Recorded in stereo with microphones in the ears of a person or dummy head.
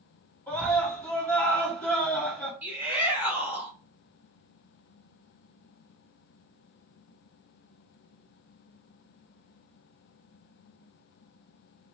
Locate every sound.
0.5 s a scream: 15° left (ahead or behind), 2 m
2.6 s a shout: 10° right (ahead or behind), 1.3 m